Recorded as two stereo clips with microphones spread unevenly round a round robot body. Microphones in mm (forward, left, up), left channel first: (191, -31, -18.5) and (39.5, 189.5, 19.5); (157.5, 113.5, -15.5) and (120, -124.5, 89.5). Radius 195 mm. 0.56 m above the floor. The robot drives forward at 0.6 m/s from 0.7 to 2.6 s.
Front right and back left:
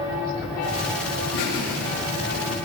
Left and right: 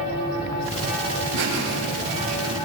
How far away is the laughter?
About 7 m.